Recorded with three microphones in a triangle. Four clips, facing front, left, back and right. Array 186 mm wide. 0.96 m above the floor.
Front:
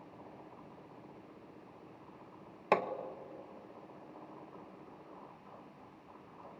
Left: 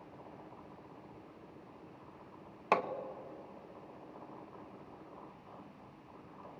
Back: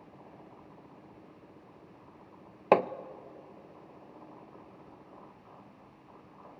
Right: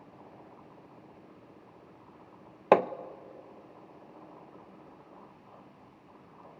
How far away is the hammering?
About 0.6 m.